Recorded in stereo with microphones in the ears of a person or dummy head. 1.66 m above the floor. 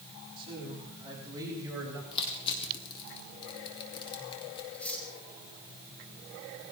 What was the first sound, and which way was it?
A man speaking, 30° right (ahead or behind).